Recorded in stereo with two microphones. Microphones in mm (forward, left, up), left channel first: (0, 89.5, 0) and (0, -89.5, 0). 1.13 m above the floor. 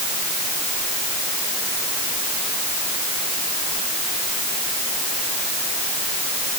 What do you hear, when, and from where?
Only background noise.